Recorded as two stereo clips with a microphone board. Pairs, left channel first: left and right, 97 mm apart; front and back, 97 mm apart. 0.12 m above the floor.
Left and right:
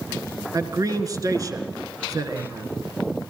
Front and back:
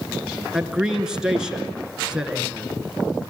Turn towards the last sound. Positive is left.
turn(degrees=-100)